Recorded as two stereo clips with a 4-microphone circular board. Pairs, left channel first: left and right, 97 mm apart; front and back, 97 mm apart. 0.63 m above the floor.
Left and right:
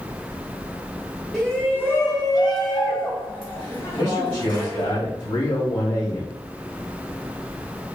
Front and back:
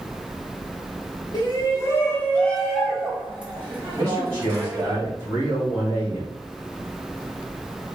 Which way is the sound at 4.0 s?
120° left.